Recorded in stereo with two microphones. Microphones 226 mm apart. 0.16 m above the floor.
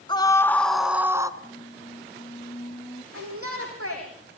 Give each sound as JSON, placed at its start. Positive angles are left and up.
{"t": 0.1, "sound": "a scream", "side_deg": 20, "distance_m": 1.6}
{"t": 1.4, "sound": "a squeak", "side_deg": 20, "distance_m": 5.5}
{"t": 3.1, "sound": "a shout", "side_deg": -80, "distance_m": 8.0}